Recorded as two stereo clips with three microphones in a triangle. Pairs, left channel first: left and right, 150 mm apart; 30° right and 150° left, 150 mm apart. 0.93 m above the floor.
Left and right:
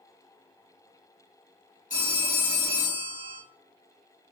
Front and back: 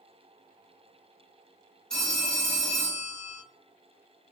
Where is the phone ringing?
55° left, 1.2 m.